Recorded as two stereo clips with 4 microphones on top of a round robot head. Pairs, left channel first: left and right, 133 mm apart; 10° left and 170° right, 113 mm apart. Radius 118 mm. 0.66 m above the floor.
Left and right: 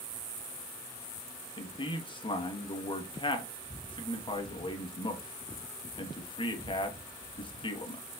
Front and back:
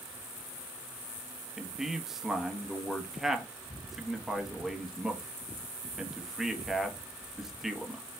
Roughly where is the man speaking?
Left.